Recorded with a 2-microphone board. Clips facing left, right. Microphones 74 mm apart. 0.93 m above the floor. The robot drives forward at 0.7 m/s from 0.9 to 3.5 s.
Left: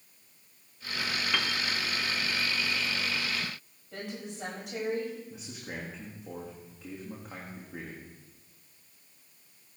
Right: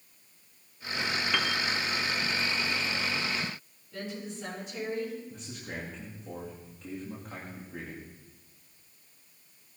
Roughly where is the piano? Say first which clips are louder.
Right 2 dB; centre.